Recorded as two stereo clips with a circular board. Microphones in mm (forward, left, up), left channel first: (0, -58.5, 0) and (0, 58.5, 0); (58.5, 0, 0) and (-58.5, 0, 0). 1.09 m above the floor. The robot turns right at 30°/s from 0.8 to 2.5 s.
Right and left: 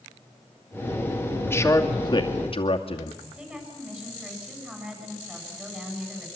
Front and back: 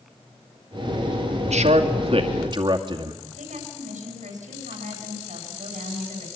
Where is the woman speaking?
170° left, 8 m.